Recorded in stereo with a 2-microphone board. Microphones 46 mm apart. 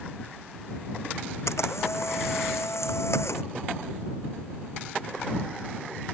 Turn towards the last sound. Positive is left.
turn(degrees=85)